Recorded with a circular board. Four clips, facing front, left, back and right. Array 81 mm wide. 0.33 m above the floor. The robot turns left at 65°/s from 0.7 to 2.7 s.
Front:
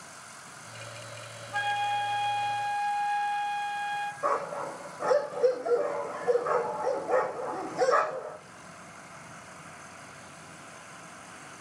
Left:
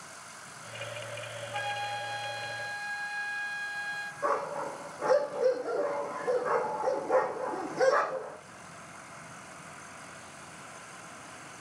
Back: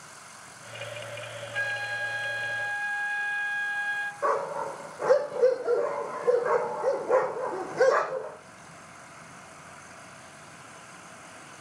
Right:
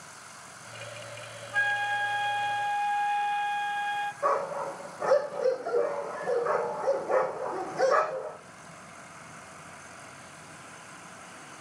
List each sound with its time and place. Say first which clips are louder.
1.5 s a flute: right 7 dB, front 4 dB; 30° right, 1.4 m; by 4.1 s 105° right, 1.4 m
4.2 s a dog barking: right 1 dB, back 4 dB; straight behind, 8 m